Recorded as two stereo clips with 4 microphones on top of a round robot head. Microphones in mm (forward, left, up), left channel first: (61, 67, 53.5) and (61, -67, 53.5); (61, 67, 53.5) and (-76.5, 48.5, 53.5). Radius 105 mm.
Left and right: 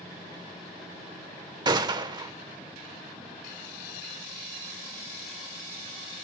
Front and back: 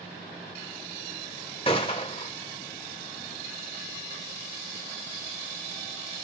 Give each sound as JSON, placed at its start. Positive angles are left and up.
{"t": 1.6, "sound": "a gunshot", "azimuth_deg": -45, "distance_m": 1.0}